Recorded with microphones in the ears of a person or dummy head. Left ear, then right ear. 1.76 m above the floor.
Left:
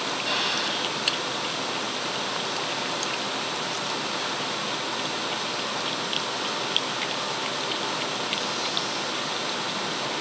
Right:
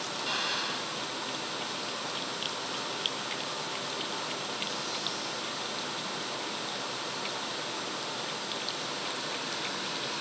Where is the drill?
5° right (ahead or behind).